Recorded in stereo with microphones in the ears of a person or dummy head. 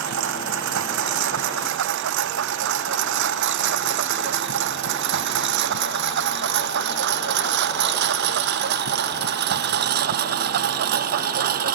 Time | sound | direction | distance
0.0 | a lawn mower | 65° right (ahead or behind) | ?